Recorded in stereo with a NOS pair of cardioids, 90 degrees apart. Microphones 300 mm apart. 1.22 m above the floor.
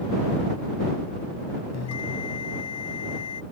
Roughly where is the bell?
Ahead left.